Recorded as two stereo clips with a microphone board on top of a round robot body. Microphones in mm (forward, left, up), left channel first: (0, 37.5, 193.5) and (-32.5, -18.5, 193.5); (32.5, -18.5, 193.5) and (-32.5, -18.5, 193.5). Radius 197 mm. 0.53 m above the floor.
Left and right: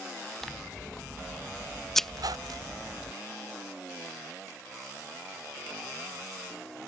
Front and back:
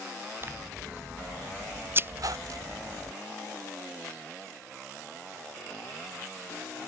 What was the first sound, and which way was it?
Scissors, 145° left.